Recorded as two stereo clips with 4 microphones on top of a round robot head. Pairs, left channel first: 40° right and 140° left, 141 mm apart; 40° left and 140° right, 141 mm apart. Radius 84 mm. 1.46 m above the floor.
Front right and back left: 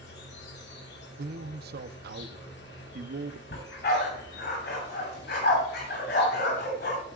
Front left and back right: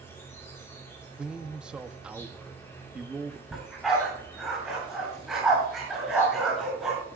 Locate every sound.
0.0 s an insect: 35° right, 1.7 m
1.2 s a man speaking: 135° left, 0.9 m
3.5 s a dog barking: 50° right, 6 m